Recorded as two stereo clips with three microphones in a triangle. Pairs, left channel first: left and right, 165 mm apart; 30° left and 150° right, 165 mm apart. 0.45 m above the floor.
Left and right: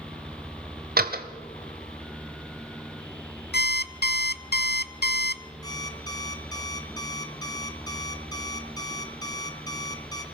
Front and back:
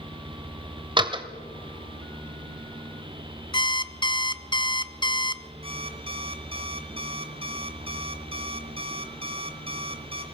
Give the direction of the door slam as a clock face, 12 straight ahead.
3 o'clock.